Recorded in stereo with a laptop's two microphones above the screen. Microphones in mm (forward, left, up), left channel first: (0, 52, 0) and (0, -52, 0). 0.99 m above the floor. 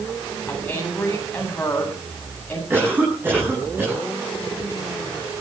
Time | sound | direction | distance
0.5 | a woman speaking | 15° left (ahead or behind) | 8.5 m
2.7 | a cough | 20° right (ahead or behind) | 8.5 m